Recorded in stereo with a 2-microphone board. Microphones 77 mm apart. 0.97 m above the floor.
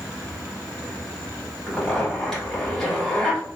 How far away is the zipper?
About 1.8 m.